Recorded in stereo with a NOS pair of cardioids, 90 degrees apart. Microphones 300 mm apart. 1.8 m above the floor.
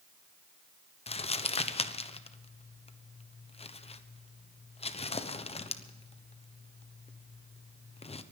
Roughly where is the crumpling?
Ahead.